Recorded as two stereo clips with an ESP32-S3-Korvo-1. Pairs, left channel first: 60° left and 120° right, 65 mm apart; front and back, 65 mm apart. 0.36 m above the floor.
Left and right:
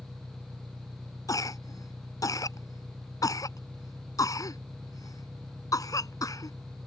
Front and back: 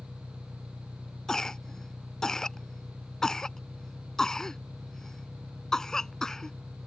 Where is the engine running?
125° right.